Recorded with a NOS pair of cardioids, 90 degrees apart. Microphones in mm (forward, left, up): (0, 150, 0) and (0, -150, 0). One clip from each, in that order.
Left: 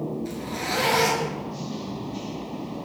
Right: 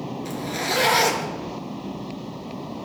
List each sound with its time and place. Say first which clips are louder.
0.2 s a zipper: right 8 dB; 45° right, 4 m